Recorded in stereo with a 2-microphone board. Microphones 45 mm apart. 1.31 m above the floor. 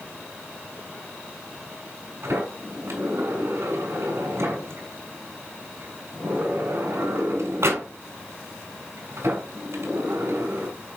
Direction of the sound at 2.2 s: 70° right (ahead or behind).